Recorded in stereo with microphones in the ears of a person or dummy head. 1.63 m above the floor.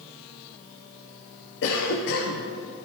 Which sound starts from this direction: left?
A cough, at 1.6 s.